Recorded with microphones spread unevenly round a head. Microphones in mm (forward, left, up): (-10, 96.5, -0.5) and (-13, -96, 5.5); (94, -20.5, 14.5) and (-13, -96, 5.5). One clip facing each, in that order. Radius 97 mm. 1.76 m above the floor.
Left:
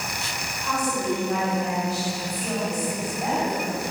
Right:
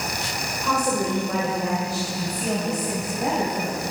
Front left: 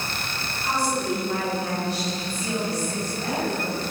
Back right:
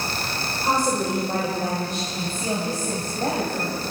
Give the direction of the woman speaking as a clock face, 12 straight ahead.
3 o'clock.